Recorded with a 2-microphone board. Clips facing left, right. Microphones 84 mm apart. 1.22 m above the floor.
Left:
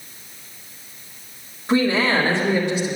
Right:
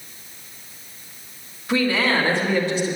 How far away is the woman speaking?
About 2 m.